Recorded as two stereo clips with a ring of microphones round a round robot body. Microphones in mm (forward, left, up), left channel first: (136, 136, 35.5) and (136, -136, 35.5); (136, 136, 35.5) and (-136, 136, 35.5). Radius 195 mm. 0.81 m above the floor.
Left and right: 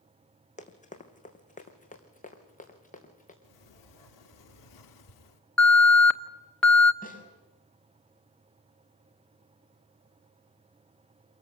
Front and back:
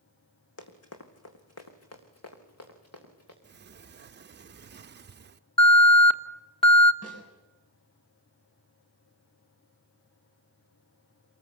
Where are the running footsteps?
25° left, 3 m; by 3.3 s 30° left, 5 m.